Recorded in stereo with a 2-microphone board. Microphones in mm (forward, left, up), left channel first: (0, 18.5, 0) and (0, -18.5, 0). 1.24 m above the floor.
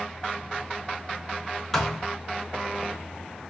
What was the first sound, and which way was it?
A thud, 5° left (ahead or behind).